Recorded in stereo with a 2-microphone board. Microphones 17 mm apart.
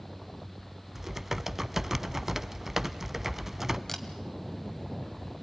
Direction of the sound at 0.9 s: 20° right (ahead or behind).